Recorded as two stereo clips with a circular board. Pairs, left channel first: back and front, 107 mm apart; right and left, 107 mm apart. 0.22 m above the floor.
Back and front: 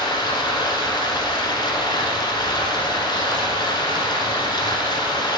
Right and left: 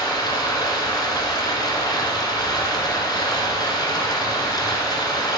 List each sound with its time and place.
0.0 s running water: 140° right, 1.2 m